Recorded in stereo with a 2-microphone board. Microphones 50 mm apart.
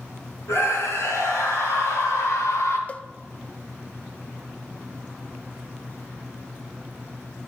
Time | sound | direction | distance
0.5 | a scream | 75° left (ahead or behind) | 6 m
2.9 | a cowbell | 30° left (ahead or behind) | 0.5 m